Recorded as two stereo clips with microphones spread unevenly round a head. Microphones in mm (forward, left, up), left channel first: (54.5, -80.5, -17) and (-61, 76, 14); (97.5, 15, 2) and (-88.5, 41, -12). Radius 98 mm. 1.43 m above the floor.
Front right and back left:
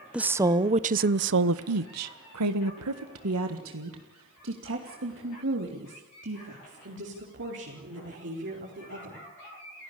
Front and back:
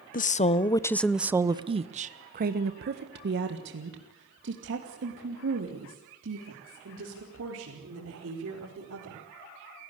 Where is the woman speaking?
40° left, 1.0 m; by 9.2 s 160° left, 6 m.